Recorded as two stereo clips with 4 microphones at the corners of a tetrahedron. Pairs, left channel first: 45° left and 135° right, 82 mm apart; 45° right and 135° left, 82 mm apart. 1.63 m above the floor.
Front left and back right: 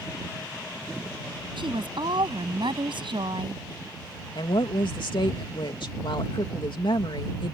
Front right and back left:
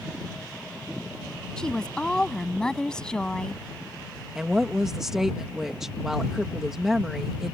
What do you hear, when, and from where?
1.6 s a woman speaking: 125° right
4.3 s a woman speaking: 50° left